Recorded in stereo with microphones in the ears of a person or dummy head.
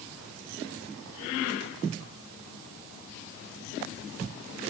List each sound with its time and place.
Only background noise.